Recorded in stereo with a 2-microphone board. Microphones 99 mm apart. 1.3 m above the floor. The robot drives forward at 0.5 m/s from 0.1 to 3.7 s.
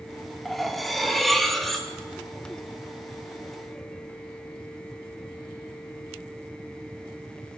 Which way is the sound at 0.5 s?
Centre (ahead or behind).